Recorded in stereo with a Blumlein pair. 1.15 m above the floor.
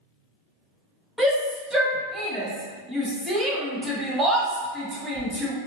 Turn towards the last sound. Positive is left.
turn(degrees=-5)